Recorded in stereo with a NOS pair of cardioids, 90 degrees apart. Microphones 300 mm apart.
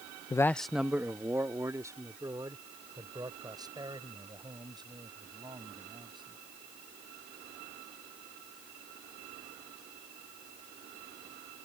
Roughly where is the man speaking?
Ahead.